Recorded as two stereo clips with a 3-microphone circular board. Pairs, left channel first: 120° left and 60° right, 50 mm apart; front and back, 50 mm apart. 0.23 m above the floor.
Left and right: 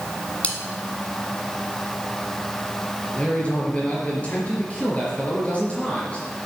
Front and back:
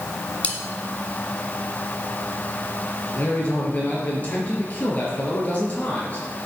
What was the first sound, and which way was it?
Cutlery clinking, 60° left.